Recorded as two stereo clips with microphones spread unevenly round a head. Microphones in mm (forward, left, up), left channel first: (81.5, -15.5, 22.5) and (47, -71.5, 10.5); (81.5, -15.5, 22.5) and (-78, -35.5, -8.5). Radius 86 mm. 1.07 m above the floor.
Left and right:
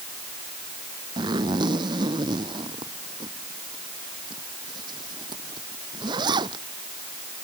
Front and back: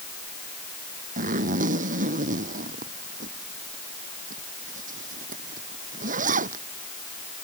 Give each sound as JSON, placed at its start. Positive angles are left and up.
{"t": 1.2, "sound": "a zipper", "azimuth_deg": -130}